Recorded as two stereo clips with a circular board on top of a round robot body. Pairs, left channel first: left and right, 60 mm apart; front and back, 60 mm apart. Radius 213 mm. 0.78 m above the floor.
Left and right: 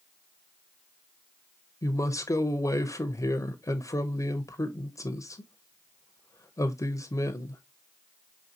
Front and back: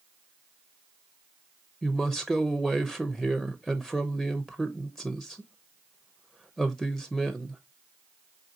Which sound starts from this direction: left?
A woman speaking, at 1.8 s.